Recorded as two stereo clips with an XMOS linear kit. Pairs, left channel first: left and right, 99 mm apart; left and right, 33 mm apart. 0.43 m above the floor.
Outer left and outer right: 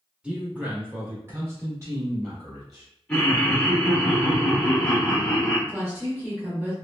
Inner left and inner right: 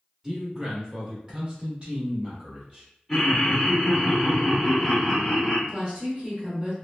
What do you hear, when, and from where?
0.2 s a man speaking: 10° right (ahead or behind), 1.1 m; by 2.9 s 30° right (ahead or behind), 1.4 m
3.1 s laughter: 10° left (ahead or behind), 1.1 m
5.7 s a woman speaking: 20° right (ahead or behind), 0.9 m